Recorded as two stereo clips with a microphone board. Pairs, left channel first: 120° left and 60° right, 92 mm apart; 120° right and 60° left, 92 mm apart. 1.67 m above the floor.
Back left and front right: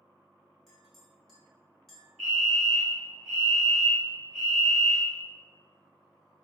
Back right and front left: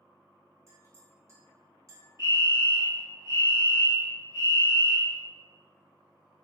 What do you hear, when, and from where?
0.7 s a clink: 35° left, 1.1 m
2.2 s a fire alarm: 150° right, 1.4 m